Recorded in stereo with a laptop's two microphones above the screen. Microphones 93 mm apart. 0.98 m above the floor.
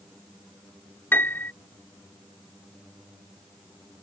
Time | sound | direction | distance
1.1 | a piano | 25° left (ahead or behind) | ?